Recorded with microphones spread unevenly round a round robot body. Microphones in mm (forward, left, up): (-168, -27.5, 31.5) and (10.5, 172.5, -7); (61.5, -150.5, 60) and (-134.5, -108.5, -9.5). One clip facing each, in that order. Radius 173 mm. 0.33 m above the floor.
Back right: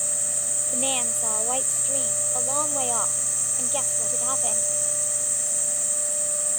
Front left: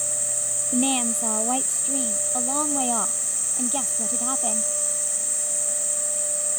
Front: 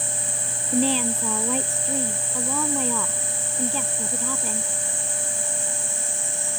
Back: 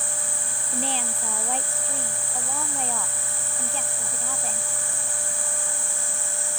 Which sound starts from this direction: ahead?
A woman speaking, at 0.7 s.